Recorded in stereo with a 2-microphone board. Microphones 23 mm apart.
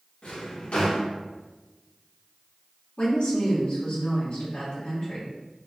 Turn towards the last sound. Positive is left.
turn(degrees=65)  # may be behind; listen again after turning